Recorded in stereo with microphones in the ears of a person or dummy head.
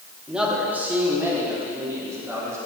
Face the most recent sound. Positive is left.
turn(degrees=-15)  # may be behind; listen again after turning